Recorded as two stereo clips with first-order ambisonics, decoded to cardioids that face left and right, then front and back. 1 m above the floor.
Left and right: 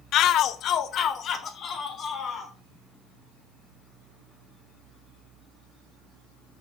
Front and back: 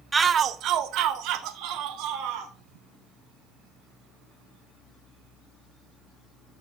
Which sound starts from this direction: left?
A shout, at 0.1 s.